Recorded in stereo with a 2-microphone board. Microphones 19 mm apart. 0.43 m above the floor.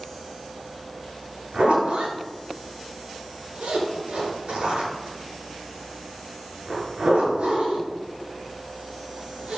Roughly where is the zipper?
Right.